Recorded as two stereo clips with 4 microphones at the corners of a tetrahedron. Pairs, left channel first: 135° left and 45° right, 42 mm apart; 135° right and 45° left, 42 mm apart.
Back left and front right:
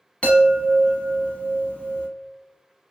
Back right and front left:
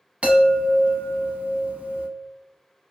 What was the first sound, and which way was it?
A chime, 85° left.